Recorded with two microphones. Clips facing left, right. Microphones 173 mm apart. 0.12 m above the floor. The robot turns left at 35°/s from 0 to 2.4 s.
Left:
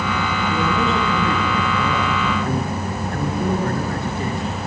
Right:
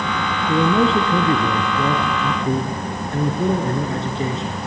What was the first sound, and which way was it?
A man speaking, 65° right.